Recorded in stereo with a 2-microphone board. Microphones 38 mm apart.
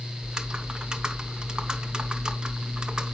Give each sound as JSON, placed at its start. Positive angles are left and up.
{"t": 0.2, "sound": "typing on a keyboard", "side_deg": -20, "distance_m": 0.8}